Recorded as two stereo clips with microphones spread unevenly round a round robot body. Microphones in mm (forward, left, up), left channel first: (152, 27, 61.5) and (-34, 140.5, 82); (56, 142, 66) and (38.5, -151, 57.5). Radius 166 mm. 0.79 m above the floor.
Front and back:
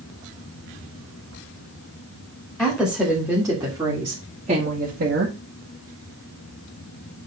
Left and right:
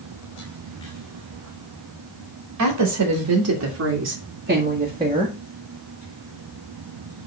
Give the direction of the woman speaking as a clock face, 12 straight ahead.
4 o'clock.